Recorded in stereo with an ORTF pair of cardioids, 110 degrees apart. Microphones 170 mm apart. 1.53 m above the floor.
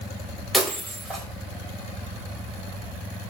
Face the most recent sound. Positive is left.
turn(degrees=0)